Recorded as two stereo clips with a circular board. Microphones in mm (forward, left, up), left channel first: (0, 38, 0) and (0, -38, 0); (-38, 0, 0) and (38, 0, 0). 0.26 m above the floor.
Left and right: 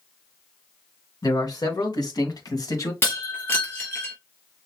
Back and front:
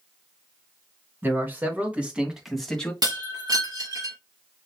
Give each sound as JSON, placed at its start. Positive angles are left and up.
{"t": 1.2, "sound": "a man speaking", "azimuth_deg": 60, "distance_m": 3.0}
{"t": 3.0, "sound": "breaking glass", "azimuth_deg": 30, "distance_m": 3.0}